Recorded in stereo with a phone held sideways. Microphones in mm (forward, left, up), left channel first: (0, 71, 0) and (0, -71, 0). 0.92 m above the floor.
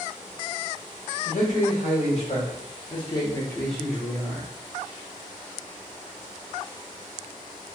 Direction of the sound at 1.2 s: 65° left (ahead or behind).